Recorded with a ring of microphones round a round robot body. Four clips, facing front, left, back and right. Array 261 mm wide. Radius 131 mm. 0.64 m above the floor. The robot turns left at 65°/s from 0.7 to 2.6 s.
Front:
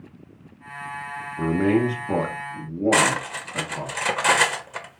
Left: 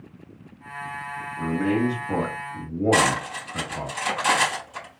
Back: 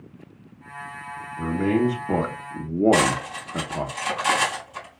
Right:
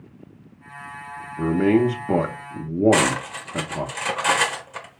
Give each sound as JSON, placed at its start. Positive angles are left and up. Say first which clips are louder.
{"t": 1.4, "sound": "a man speaking", "louder": "right 5 dB, front 2 dB", "azimuth_deg": -55, "distance_m": 1.0}
{"t": 2.9, "sound": "cutlery clinking", "louder": "right 1 dB, even", "azimuth_deg": -25, "distance_m": 1.4}